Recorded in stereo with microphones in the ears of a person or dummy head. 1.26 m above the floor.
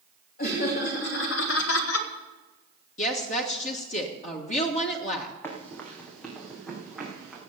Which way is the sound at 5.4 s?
15° left (ahead or behind).